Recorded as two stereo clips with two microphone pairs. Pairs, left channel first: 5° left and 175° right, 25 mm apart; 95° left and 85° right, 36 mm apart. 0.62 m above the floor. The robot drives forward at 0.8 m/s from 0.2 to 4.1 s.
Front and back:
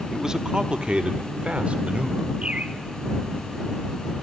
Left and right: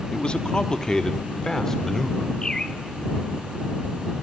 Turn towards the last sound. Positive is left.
turn(degrees=170)